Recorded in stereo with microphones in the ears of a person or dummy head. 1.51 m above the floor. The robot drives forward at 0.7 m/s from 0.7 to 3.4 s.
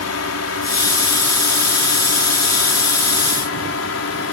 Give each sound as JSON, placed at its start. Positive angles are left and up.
{"t": 0.0, "sound": "a drone", "side_deg": 75}